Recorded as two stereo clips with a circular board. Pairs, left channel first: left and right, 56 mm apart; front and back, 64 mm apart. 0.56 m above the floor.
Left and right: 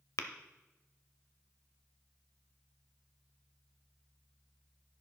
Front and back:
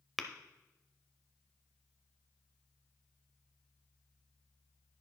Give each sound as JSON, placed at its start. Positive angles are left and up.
{"t": 0.2, "sound": "tapping", "azimuth_deg": 90, "distance_m": 0.7}